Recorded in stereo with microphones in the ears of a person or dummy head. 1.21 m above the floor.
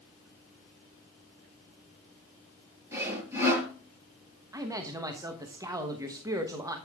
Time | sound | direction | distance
2.9 | sawing | 15° right (ahead or behind) | 6.5 m
4.5 | a man speaking | 15° right (ahead or behind) | 1.2 m